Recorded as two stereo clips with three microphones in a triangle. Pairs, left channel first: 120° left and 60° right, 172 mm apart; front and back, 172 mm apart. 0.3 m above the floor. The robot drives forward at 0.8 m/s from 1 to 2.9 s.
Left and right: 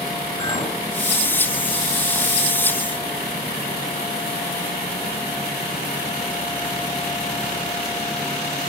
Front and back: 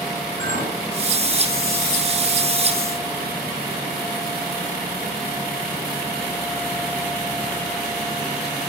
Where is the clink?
155° left, 2 m.